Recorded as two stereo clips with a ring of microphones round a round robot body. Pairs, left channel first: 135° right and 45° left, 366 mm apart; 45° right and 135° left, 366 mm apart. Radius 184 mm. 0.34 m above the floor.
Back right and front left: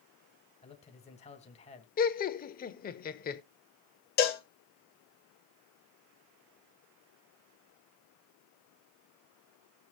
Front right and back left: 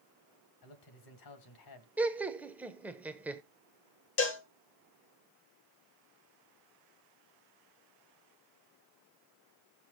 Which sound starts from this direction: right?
A cowbell, at 4.2 s.